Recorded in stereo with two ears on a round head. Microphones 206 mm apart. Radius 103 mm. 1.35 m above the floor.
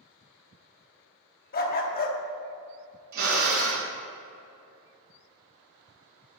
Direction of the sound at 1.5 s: 40° left (ahead or behind).